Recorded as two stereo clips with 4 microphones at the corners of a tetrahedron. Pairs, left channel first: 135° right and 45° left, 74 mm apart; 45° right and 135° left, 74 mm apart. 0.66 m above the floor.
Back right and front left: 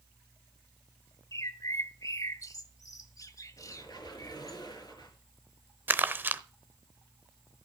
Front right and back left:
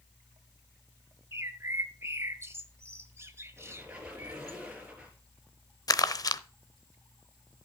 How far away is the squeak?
About 3.5 m.